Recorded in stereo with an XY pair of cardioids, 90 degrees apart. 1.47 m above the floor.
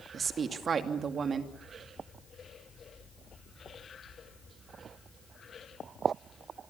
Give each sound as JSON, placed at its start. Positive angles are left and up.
{"t": 0.1, "sound": "a woman speaking", "azimuth_deg": -50, "distance_m": 2.5}